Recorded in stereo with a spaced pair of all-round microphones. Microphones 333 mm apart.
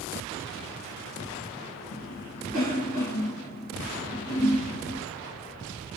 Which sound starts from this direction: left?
A cough, at 1.9 s.